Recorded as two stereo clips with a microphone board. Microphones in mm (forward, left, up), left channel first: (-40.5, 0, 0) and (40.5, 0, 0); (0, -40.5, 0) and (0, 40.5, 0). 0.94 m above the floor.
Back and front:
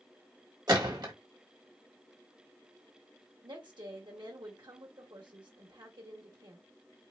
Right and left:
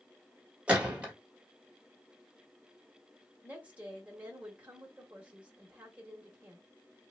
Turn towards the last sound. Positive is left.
turn(degrees=20)